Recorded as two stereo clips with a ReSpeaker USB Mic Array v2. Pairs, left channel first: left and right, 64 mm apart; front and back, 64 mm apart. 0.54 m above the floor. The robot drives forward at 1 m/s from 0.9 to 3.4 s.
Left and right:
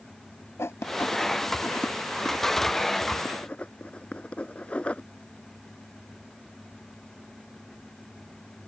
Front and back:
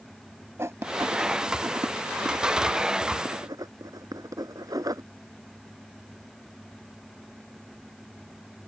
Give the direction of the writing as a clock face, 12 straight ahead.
7 o'clock.